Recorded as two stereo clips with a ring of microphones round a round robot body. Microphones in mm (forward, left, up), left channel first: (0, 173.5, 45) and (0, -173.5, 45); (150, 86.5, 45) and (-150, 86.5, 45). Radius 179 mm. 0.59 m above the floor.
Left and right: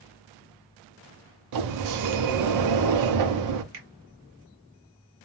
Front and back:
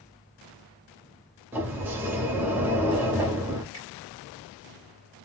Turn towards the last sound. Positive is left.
turn(degrees=-75)